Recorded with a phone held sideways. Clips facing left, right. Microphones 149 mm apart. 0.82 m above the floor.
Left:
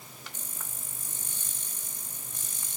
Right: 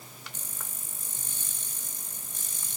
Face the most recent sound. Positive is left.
No sound to turn to.